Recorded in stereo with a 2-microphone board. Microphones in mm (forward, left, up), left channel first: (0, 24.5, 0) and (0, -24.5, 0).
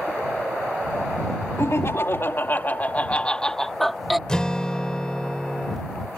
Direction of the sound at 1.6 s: 65° left (ahead or behind).